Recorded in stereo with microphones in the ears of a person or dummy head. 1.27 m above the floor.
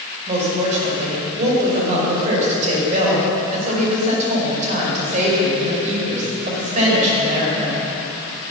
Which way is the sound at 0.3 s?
40° right (ahead or behind).